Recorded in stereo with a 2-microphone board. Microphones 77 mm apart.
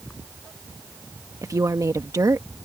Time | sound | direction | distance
1.4 | a woman speaking | 45° right (ahead or behind) | ?